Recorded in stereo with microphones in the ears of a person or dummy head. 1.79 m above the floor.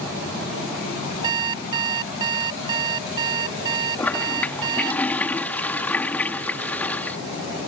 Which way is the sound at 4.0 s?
5° left (ahead or behind).